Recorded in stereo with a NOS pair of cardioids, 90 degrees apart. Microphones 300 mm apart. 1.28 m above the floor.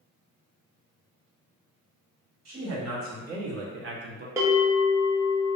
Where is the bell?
10° right, 0.9 m.